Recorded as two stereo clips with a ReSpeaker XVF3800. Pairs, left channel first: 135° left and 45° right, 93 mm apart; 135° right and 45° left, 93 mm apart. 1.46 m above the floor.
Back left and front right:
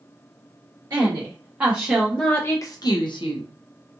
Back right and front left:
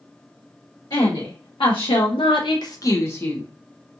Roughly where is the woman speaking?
Right.